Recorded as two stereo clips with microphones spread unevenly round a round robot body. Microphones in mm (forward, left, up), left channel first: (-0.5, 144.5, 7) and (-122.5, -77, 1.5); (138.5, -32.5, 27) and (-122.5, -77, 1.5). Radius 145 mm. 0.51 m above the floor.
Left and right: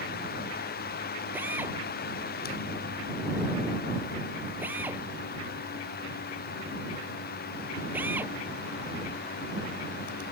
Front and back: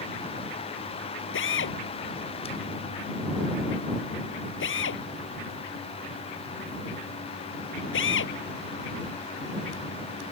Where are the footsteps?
No footsteps in this recording.